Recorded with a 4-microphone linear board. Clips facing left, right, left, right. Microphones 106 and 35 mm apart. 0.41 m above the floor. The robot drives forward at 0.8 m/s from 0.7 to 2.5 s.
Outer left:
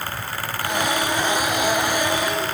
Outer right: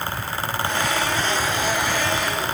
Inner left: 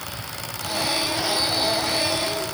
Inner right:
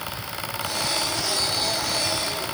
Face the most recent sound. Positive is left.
No sound to turn to.